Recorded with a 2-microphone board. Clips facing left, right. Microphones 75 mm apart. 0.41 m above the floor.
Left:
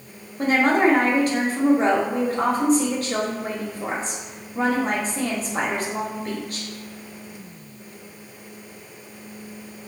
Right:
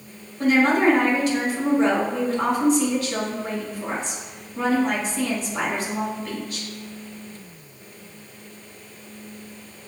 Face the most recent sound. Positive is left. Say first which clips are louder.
# even
turn(degrees=40)  # may be behind; listen again after turning